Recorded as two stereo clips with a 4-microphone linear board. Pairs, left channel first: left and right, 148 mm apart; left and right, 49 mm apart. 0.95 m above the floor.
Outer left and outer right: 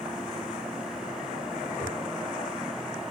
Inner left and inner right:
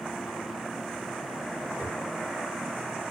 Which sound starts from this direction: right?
A whoosh, at 1.7 s.